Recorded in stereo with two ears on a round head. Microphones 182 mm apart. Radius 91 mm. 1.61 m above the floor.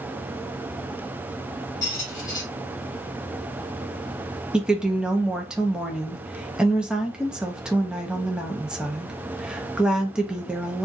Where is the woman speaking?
5° right (ahead or behind), 0.6 m.